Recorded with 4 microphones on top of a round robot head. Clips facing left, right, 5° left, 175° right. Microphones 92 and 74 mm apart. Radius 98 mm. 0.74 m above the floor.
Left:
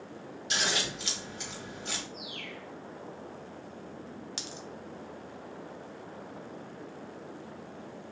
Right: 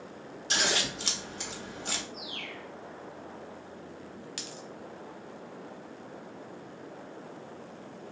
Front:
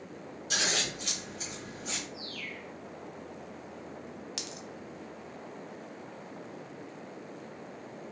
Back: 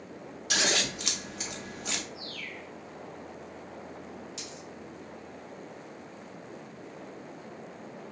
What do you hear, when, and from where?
0.5 s scissors: 145° right, 0.7 m
2.1 s a bird: 75° right, 1.4 m
4.4 s a dropped coin: 25° left, 0.7 m